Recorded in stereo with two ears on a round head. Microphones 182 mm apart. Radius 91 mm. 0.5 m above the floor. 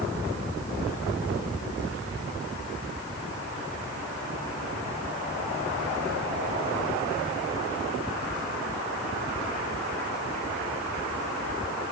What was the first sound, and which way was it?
Only background noise.